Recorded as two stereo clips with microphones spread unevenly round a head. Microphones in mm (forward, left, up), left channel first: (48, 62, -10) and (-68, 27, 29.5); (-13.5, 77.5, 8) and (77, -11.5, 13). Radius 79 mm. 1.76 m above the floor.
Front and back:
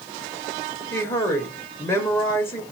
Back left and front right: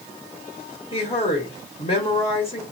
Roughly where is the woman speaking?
Left.